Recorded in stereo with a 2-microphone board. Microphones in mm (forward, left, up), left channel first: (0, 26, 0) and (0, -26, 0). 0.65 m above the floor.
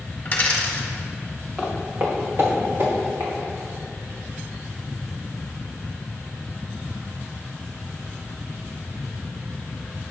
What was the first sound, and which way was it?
A dropped coin, 35° left (ahead or behind).